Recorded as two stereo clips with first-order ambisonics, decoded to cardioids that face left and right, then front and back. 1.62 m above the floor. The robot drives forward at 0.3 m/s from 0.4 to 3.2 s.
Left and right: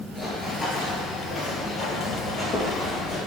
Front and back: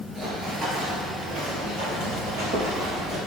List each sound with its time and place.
0.1 s running footsteps: 175° left, 1.7 m; by 3.2 s 160° left, 3.5 m